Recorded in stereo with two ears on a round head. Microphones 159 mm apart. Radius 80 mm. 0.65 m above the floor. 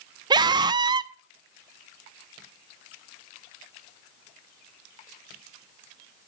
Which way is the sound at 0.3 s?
25° right (ahead or behind).